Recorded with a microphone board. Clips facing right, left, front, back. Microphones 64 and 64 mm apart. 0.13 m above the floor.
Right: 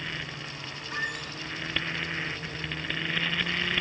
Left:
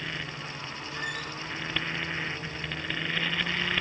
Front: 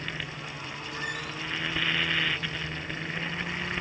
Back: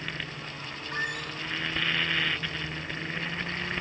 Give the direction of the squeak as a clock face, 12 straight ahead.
5 o'clock.